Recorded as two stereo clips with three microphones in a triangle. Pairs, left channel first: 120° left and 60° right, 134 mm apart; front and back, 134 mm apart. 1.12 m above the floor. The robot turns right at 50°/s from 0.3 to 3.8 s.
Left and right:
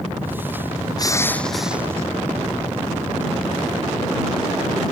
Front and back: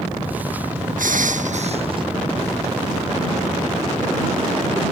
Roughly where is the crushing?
Behind.